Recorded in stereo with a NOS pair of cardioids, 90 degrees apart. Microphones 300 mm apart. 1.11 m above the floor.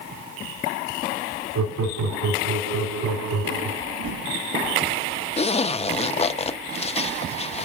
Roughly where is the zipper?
Ahead.